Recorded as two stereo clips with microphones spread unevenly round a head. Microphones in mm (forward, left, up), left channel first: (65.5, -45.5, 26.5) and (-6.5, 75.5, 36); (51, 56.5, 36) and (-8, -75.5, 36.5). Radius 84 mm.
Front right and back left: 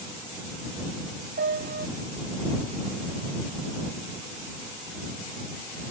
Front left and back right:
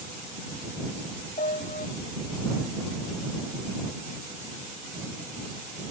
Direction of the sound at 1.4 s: 115° left.